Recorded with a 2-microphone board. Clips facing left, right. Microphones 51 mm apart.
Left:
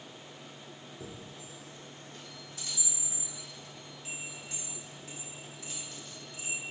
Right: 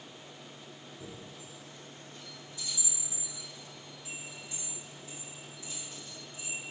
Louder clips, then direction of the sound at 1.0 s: Left 1 dB; 75° left (ahead or behind).